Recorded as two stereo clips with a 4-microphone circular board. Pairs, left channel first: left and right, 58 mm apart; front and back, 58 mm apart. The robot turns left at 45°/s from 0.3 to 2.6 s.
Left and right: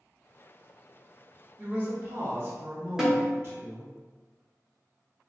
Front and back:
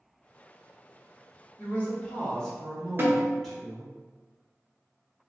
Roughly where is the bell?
I don't hear a bell.